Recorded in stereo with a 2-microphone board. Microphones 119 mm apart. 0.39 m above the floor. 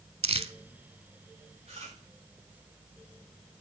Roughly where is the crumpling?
Right.